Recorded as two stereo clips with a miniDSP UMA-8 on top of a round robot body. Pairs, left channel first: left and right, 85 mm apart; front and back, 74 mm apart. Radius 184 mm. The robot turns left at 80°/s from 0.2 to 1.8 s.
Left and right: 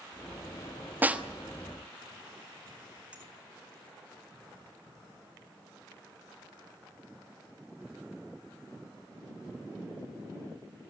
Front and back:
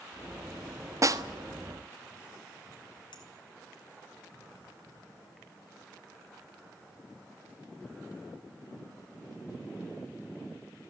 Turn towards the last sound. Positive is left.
turn(degrees=-15)